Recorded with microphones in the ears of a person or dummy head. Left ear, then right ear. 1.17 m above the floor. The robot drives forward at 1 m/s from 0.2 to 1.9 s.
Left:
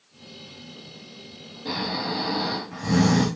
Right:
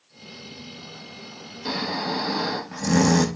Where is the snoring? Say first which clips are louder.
Right 1 dB; 75° right (ahead or behind), 0.9 m; by 3.3 s 85° right, 0.9 m.